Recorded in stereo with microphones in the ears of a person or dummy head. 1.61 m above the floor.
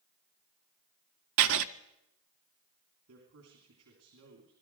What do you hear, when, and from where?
1.4 s writing: 70° right (ahead or behind), 0.6 m
3.1 s a man speaking: 75° right (ahead or behind), 3.5 m